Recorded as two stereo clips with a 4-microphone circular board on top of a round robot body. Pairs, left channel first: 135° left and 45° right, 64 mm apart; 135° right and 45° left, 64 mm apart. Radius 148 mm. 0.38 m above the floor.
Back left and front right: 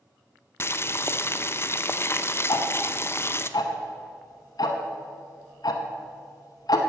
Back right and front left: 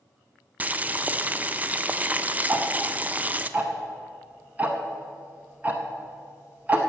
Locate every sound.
0.6 s boiling: 100° left, 0.7 m
2.5 s ticking: 110° left, 0.7 m